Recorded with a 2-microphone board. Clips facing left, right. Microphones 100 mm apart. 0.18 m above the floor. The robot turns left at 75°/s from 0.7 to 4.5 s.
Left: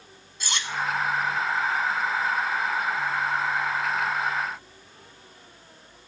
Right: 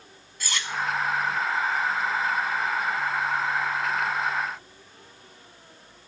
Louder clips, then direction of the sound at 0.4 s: Left 1 dB; 25° left (ahead or behind).